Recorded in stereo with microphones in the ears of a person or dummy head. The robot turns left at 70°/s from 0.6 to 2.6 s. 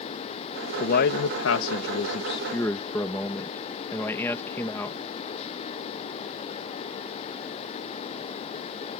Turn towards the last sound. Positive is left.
turn(degrees=15)